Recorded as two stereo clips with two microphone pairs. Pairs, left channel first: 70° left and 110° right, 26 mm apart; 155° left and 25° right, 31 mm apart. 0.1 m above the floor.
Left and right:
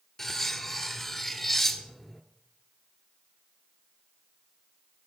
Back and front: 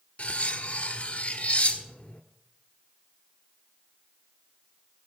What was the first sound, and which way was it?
Cutlery clinking, 145° left.